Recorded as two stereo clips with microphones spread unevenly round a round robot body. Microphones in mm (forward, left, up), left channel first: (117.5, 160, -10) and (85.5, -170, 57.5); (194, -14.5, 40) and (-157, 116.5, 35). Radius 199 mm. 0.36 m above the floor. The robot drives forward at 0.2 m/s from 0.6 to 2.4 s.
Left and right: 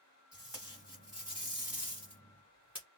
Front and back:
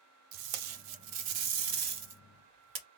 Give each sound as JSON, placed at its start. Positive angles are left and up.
{"t": 0.3, "sound": "tape being pulled", "azimuth_deg": 175, "distance_m": 0.5}